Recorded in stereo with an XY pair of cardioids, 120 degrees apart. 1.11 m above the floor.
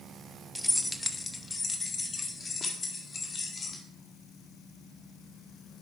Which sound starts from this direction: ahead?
Keys jangling, at 0.6 s.